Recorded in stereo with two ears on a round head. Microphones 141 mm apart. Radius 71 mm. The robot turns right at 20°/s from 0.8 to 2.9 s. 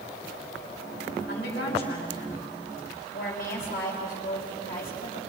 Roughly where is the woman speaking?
Left.